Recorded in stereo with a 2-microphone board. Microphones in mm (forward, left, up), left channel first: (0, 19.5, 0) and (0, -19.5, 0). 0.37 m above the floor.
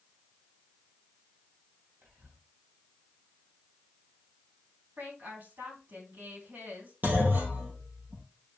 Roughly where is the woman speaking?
Right.